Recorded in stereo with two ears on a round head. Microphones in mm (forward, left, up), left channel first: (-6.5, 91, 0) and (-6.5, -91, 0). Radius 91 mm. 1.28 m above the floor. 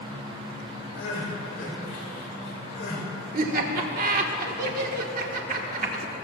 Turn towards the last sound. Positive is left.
turn(degrees=-45)  # may be behind; listen again after turning